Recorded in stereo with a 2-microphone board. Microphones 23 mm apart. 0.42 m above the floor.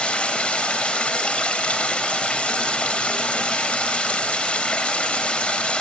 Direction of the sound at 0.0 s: 70° left (ahead or behind).